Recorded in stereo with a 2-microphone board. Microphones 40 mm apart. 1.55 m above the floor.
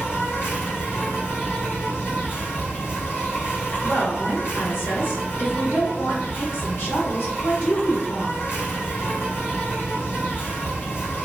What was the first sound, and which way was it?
An insect, 65° left (ahead or behind).